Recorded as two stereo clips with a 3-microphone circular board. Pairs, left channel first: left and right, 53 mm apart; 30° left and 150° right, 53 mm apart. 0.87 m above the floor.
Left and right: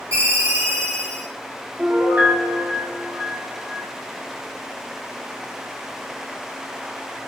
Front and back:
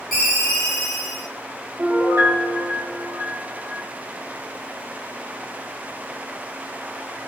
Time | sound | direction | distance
0.1 | a ringtone | 60° right | 1.2 m
1.8 | a piano | 135° right | 0.8 m